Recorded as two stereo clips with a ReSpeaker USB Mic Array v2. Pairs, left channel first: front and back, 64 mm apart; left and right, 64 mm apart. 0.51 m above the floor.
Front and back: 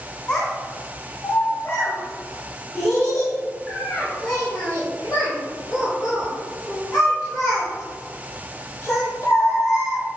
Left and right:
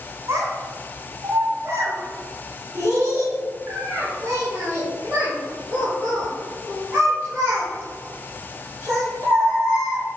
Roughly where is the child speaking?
Ahead right.